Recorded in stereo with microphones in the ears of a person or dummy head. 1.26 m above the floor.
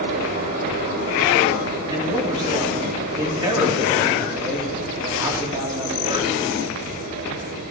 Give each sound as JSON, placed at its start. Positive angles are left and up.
{"t": 0.0, "sound": "a fan", "side_deg": -50, "distance_m": 3.5}
{"t": 1.9, "sound": "a man speaking", "side_deg": -20, "distance_m": 3.0}